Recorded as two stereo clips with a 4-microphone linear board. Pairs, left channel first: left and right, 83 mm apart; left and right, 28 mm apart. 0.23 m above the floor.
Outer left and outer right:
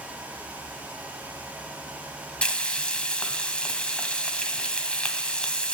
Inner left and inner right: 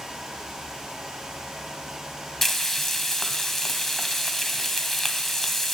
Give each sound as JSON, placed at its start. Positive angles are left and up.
{"t": 2.4, "sound": "frying", "side_deg": 15, "distance_m": 1.4}